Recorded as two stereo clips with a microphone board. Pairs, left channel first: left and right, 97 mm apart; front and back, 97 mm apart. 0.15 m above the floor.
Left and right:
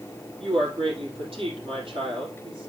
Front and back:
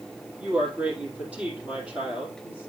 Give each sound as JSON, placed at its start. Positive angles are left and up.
{"t": 0.4, "sound": "a woman speaking", "azimuth_deg": -105, "distance_m": 3.5}